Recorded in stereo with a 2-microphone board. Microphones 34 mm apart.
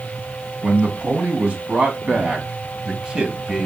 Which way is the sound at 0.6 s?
40° right (ahead or behind).